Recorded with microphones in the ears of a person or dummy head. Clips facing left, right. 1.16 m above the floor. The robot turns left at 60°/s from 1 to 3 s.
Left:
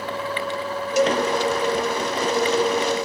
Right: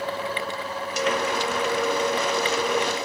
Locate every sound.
1.0 s a cowbell: 35° left (ahead or behind), 0.7 m; by 1.2 s 30° left (ahead or behind), 0.7 m